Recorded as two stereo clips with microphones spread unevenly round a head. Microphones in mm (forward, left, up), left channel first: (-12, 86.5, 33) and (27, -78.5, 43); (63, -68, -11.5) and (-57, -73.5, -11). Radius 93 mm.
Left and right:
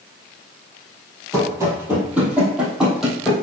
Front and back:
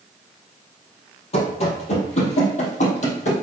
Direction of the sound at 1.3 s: 10° right.